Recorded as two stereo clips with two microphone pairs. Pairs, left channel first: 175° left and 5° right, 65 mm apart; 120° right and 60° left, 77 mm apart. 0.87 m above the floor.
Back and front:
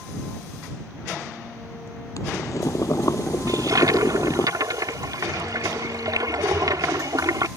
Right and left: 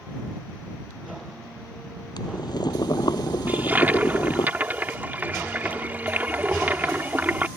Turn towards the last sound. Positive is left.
turn(degrees=-5)